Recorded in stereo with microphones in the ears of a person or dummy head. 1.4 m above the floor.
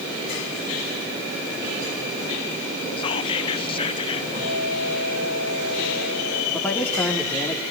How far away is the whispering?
About 0.5 m.